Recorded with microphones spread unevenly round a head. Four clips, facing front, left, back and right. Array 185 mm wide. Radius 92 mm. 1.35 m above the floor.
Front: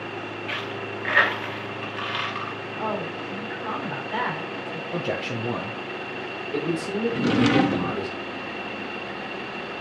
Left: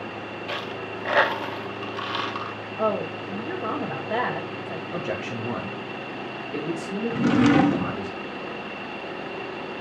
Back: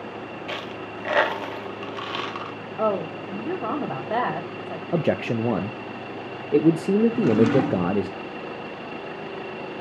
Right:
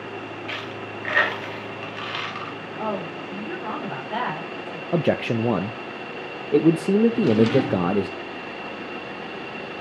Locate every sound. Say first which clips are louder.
0.5 s a dropped coin: left 1 dB, front 1 dB; 140° left, 1.0 m
2.8 s a woman speaking: left 4 dB, back 5 dB; 160° left, 4 m
4.9 s a man speaking: right 10 dB, back 6 dB; 125° right, 0.6 m
7.1 s a drawer: even, back 2 dB; 65° left, 0.9 m